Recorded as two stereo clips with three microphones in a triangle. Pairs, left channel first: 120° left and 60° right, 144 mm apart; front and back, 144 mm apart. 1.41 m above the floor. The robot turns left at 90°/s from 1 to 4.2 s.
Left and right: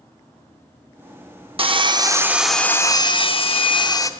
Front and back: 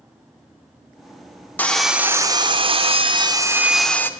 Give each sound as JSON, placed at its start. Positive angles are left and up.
{"t": 1.6, "sound": "sawing", "azimuth_deg": -70, "distance_m": 0.6}